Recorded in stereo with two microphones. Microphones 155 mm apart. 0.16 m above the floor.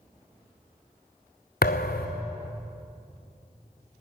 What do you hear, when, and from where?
1.6 s a thud: 85° left, 1.1 m